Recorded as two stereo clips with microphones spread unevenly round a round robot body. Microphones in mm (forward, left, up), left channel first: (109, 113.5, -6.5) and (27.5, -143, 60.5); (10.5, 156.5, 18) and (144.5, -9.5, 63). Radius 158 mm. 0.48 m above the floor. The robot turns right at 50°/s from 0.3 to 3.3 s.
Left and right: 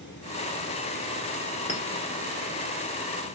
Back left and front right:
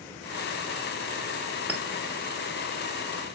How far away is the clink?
About 0.9 m.